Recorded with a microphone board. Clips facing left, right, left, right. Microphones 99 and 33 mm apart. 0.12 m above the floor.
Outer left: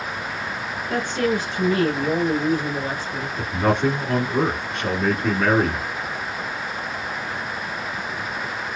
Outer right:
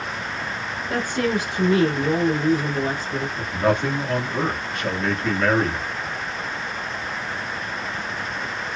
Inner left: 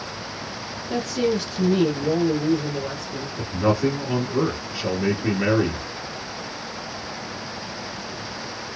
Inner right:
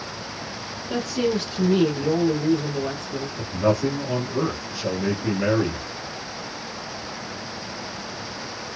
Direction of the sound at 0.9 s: 10° right (ahead or behind).